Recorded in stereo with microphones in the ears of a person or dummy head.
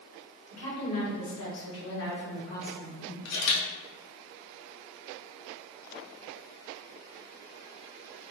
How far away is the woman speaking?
About 1.8 m.